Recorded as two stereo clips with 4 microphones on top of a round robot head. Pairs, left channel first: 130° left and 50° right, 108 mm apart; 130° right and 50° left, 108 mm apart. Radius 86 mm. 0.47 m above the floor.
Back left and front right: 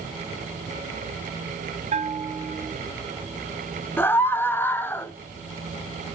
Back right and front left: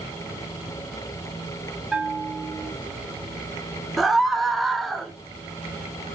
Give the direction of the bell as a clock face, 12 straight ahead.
1 o'clock.